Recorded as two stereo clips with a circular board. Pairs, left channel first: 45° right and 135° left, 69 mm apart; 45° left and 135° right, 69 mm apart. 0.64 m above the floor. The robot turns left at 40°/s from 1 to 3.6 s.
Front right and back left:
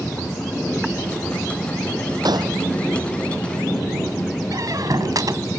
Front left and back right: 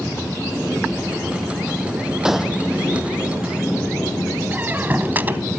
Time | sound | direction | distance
2.2 | a gunshot | 145° left | ?
4.5 | a squeak | 160° left | ?